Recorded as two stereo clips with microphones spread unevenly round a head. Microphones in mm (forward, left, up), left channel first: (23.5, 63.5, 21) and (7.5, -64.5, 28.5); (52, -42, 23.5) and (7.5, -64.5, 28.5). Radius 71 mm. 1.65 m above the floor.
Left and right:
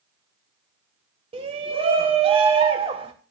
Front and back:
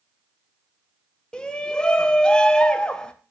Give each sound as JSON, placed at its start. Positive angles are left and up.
{"t": 1.3, "sound": "a shout", "azimuth_deg": -50, "distance_m": 1.4}